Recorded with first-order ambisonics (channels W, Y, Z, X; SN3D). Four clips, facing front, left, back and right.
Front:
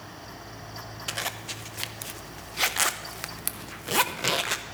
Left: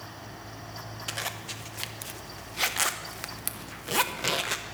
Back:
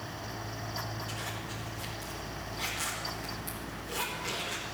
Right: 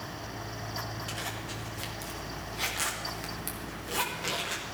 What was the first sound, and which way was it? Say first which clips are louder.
A zipper: left 2 dB, front 6 dB; 25° left.